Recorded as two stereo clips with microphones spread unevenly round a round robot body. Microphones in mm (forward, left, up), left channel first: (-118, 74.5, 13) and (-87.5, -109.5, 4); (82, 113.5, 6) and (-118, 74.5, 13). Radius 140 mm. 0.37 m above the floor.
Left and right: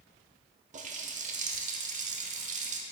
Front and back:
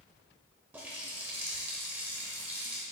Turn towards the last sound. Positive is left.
turn(degrees=-90)